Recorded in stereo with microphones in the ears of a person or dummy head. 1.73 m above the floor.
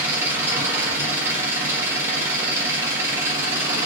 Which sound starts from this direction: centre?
An engine running, at 0.0 s.